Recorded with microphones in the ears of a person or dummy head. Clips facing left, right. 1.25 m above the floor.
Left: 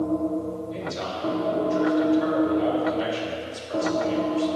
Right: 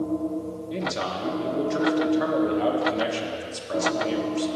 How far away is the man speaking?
About 0.9 m.